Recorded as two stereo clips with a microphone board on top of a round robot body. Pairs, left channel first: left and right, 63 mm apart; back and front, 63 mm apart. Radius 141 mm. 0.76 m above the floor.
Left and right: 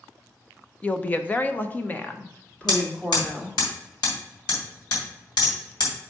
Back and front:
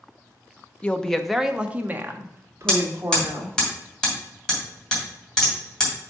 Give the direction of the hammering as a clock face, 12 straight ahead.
9 o'clock.